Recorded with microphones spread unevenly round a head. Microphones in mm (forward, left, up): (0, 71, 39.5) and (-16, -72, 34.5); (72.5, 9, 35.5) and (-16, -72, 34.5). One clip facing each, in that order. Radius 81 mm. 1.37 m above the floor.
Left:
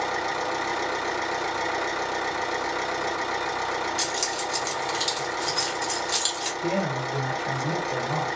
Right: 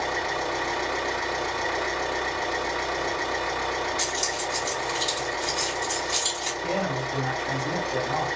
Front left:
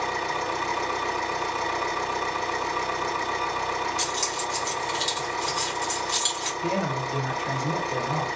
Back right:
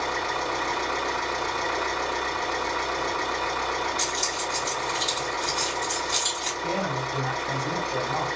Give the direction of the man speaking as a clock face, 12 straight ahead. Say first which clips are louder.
Left 1 dB, front left 1 dB; 11 o'clock.